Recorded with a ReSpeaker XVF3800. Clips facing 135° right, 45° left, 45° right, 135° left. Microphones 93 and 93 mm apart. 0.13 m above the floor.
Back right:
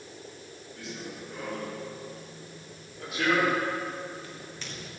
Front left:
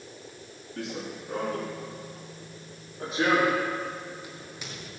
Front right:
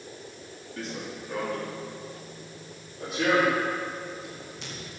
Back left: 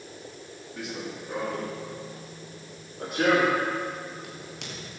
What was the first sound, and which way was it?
Running footsteps, 55° left.